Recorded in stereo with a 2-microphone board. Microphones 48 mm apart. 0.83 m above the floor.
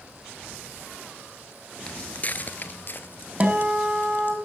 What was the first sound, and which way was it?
Footsteps, 20° left (ahead or behind).